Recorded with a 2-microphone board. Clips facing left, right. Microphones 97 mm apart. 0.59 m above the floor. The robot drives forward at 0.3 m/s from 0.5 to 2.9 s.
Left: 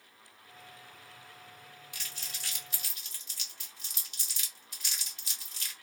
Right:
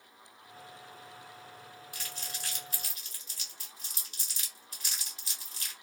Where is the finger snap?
I don't hear a finger snap.